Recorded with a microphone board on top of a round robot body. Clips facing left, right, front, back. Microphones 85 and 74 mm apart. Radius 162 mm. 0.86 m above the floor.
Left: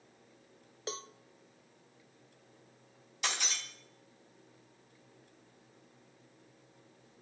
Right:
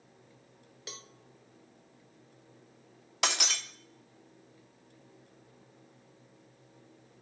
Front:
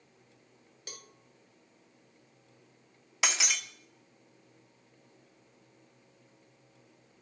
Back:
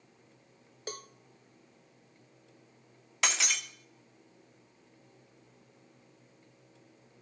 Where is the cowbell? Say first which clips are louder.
Left 8 dB, back 9 dB; 140° left, 0.8 m.